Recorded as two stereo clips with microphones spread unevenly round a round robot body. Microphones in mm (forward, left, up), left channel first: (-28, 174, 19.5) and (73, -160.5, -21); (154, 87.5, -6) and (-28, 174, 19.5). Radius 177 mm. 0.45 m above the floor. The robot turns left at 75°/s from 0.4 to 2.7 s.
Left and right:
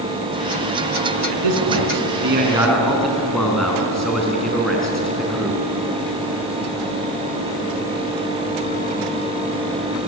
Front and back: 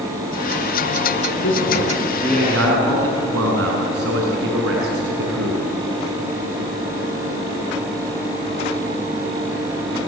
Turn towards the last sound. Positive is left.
turn(degrees=-165)